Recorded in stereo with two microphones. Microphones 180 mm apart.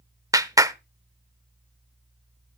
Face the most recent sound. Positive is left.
turn(degrees=-20)  # may be behind; listen again after turning